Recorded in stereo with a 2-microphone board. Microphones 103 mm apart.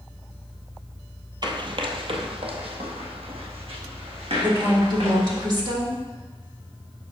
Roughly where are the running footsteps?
Right.